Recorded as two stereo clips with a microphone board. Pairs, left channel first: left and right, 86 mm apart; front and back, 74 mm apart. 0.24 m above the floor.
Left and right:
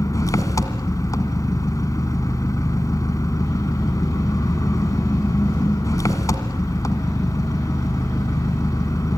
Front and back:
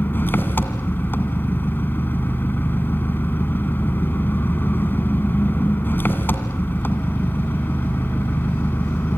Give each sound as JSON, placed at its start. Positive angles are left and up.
{"t": 0.0, "sound": "an engine running", "azimuth_deg": 55, "distance_m": 1.8}